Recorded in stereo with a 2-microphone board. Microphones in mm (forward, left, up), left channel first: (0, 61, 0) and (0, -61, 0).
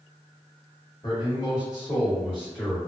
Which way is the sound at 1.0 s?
40° left (ahead or behind).